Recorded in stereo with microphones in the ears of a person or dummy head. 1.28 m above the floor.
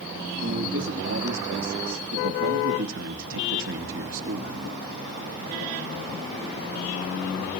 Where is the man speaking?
70° right (ahead or behind), 2.5 m.